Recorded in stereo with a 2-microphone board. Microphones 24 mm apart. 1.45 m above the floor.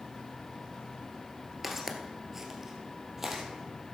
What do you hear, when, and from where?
1.6 s footsteps: 10° right (ahead or behind), 1.5 m; by 3.4 s 15° right (ahead or behind), 2.5 m